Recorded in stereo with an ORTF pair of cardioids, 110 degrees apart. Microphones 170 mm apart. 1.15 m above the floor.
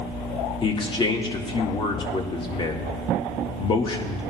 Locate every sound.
0.6 s a man speaking: 30° left, 1.8 m